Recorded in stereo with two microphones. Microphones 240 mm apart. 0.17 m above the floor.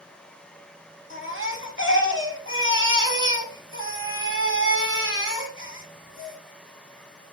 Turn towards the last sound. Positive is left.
turn(degrees=-55)  # may be behind; listen again after turning